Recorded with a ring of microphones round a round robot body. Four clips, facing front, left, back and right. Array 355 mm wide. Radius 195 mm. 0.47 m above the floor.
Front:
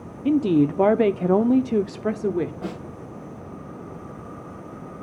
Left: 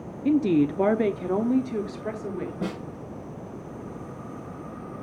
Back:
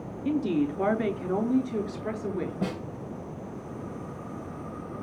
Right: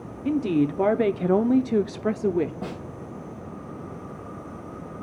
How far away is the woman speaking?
About 0.9 m.